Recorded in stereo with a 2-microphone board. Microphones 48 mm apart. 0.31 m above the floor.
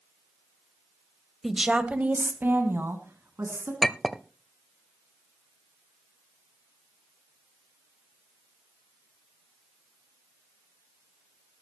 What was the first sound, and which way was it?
A woman speaking, 5° right (ahead or behind).